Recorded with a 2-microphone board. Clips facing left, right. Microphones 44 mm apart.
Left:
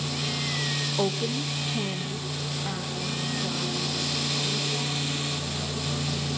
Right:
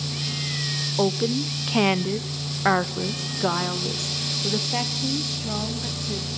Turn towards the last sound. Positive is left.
turn(degrees=-55)  # may be behind; listen again after turning